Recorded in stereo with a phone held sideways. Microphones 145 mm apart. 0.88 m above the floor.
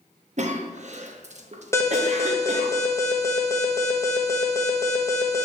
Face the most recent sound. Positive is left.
turn(degrees=20)  # may be behind; listen again after turning